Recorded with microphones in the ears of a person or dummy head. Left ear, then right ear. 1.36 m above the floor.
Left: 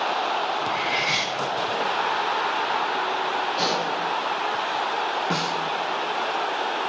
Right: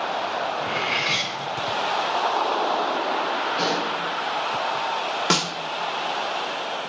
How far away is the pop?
About 4 m.